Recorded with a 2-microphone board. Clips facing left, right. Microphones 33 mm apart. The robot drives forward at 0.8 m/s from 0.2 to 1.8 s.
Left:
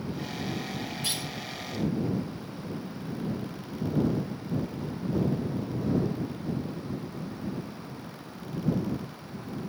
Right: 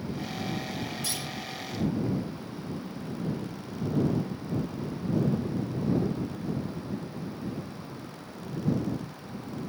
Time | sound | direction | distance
1.0 | a clunk | 40° left (ahead or behind) | 4.5 m